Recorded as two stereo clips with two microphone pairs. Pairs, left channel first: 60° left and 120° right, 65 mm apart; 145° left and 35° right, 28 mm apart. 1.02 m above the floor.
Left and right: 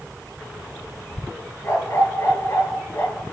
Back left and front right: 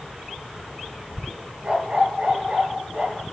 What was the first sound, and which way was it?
A dog barking, 15° left.